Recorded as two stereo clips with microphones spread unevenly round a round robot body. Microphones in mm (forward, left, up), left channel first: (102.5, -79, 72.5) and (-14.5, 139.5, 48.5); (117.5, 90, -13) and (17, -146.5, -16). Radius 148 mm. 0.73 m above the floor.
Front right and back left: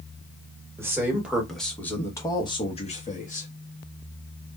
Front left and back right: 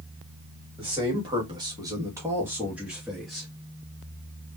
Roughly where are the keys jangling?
No keys jangling in this recording.